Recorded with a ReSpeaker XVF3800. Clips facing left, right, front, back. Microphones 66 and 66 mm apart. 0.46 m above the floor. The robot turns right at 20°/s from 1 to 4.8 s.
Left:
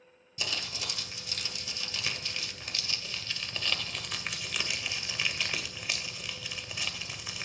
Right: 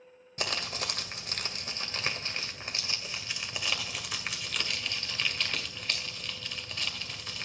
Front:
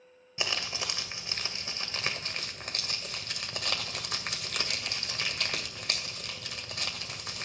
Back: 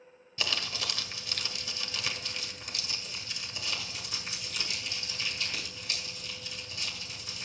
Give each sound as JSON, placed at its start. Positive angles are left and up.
{"t": 0.4, "sound": "crumpling", "azimuth_deg": -65, "distance_m": 2.0}